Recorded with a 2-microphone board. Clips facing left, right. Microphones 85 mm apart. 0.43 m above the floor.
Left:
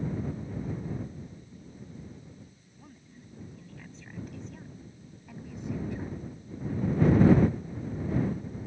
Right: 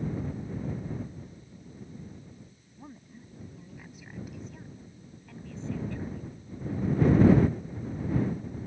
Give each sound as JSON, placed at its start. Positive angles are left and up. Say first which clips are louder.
{"t": 2.8, "sound": "a woman speaking", "louder": "right 5 dB", "side_deg": -30}